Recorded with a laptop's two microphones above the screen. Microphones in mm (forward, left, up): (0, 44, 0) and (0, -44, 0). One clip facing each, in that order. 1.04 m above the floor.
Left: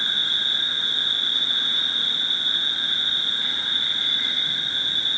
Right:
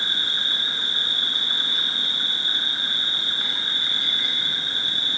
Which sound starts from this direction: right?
An insect, at 0.0 s.